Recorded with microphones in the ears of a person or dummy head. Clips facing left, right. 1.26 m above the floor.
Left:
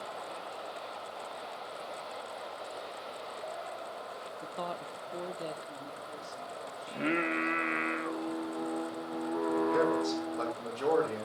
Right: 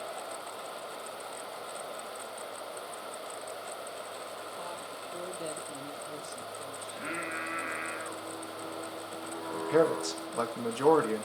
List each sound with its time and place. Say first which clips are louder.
4.4 s a woman speaking: left 3 dB; 65° left (ahead or behind), 1.0 m; by 7.9 s 55° right (ahead or behind), 3.5 m
6.9 s singing: left 10 dB; 60° left (ahead or behind), 1.0 m
9.5 s a man speaking: right 3 dB; 75° right (ahead or behind), 1.9 m